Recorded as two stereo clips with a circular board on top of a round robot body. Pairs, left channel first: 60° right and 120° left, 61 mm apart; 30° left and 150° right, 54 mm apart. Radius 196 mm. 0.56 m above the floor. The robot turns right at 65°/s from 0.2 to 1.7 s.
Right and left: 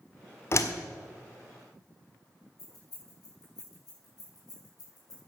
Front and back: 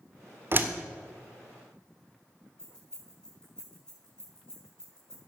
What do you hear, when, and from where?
0.5 s a door slam: 105° right, 1.5 m; by 0.7 s 90° right, 1.5 m
2.6 s keys jangling: 50° right, 7 m